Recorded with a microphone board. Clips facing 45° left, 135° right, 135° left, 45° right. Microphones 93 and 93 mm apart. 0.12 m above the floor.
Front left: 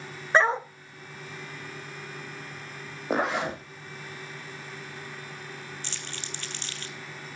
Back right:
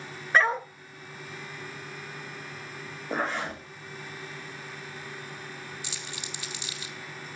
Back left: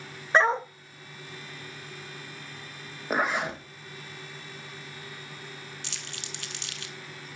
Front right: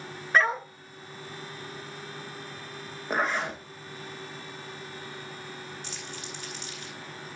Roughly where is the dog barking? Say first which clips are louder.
Front left 2 dB, back left 2 dB; left.